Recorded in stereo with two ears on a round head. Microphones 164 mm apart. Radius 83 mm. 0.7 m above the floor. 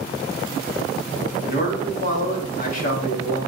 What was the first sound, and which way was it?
A man speaking, 45° left (ahead or behind).